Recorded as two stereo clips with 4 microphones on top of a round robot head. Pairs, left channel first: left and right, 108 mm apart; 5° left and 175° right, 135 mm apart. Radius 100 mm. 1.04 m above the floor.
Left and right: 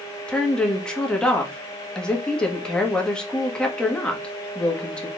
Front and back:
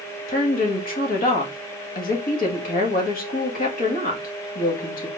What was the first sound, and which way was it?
A woman speaking, 10° left.